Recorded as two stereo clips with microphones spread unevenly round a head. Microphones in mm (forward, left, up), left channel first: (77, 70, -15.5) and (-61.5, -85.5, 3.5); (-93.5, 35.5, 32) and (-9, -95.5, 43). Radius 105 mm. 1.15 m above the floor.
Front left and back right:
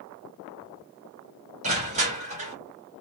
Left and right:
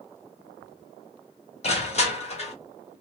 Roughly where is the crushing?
Behind.